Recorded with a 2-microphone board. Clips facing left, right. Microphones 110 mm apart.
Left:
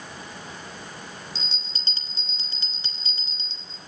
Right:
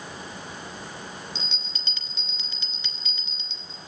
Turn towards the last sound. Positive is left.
turn(degrees=35)  # may be behind; listen again after turning